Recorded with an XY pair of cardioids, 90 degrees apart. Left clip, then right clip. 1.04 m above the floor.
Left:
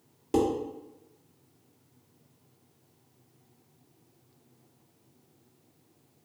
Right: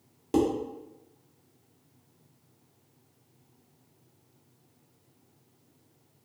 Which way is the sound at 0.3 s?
10° right.